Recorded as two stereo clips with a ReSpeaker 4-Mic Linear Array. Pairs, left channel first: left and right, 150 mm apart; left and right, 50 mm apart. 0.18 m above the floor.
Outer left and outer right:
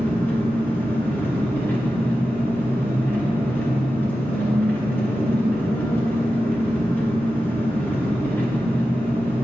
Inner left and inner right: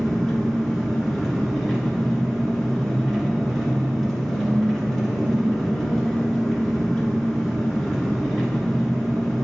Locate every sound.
0.0 s an engine running: 10° left (ahead or behind), 1.7 m